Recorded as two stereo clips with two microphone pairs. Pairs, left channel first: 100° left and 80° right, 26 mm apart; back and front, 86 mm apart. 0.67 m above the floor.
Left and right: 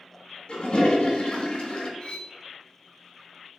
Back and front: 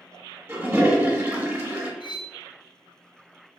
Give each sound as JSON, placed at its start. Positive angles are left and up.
{"t": 0.5, "sound": "a toilet flushing", "azimuth_deg": 65, "distance_m": 1.1}
{"t": 2.0, "sound": "cutlery clinking", "azimuth_deg": 160, "distance_m": 0.8}